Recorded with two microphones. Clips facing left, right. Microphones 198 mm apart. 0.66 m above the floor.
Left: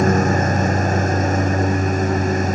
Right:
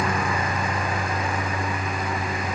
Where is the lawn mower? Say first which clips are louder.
Left 9 dB; 45° left (ahead or behind).